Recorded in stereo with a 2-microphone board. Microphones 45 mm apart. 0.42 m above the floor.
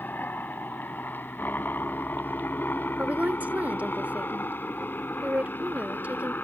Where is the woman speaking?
40° right (ahead or behind).